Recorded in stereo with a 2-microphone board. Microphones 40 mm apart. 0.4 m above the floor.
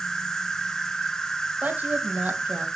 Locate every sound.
0.0 s an insect: 15° left (ahead or behind), 0.9 m
1.6 s a woman speaking: 40° right (ahead or behind), 2.5 m